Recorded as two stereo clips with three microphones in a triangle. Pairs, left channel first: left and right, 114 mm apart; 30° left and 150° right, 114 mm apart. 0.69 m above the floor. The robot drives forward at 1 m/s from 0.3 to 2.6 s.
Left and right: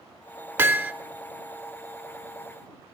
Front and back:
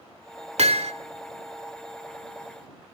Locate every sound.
0.6 s hammering: 160° right, 1.7 m